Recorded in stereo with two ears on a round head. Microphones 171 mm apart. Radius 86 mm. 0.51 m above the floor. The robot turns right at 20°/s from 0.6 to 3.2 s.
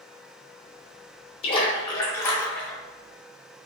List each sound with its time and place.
1.4 s a splash: 30° left (ahead or behind), 0.6 m; by 2.8 s 5° left (ahead or behind), 0.6 m